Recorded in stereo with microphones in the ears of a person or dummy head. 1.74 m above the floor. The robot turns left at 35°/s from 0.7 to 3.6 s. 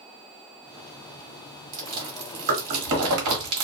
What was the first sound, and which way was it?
Chewing, 45° right (ahead or behind).